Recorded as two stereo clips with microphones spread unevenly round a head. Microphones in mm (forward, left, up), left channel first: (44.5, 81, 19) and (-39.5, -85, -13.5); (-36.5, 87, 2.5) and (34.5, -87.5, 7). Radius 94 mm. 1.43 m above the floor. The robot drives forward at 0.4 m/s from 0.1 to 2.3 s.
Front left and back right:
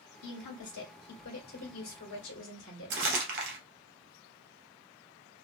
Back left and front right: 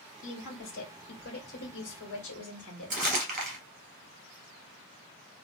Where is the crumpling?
100° right, 1.5 m.